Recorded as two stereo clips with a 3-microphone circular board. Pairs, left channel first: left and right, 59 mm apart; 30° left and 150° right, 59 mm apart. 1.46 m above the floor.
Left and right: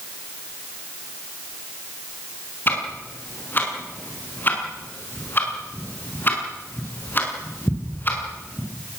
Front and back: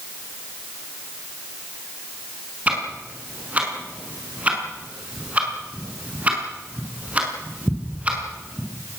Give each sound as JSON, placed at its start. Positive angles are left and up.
{"t": 2.7, "sound": "ticking", "azimuth_deg": 145, "distance_m": 6.0}